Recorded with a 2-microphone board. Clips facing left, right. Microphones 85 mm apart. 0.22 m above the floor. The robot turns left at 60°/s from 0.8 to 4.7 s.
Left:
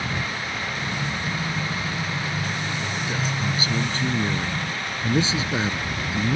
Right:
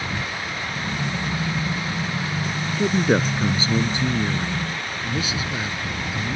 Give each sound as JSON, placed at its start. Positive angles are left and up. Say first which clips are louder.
{"t": 2.8, "sound": "a man speaking", "louder": "right 8 dB", "azimuth_deg": -95}